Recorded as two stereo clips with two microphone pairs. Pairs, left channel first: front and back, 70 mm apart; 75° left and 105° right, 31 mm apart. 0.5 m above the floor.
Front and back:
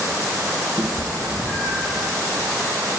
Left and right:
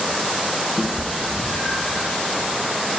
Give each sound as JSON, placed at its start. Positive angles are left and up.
{"t": 0.8, "sound": "a cat meowing", "azimuth_deg": 55, "distance_m": 1.0}